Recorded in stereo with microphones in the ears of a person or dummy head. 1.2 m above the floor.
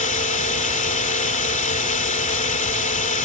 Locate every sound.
0.0 s a drone: 45° left (ahead or behind)